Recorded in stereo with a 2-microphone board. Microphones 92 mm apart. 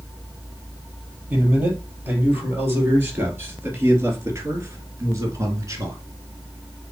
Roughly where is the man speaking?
Centre.